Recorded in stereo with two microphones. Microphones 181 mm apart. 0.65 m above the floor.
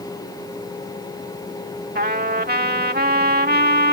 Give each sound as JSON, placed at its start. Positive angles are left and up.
{"t": 1.9, "sound": "a trumpet", "side_deg": -60}